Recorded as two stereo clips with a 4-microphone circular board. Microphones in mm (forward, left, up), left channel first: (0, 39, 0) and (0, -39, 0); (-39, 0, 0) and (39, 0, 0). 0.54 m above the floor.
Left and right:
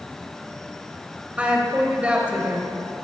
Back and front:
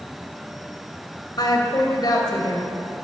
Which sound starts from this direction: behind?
A woman speaking, at 1.4 s.